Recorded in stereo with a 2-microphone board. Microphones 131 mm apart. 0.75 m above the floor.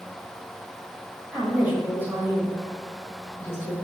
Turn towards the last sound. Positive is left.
turn(degrees=-25)  # may be behind; listen again after turning